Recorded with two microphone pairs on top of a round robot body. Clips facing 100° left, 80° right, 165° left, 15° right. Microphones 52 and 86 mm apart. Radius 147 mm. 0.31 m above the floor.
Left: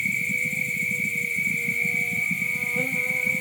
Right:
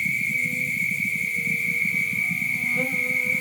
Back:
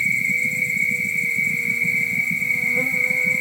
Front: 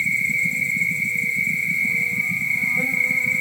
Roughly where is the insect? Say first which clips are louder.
Right 1 dB, even; behind.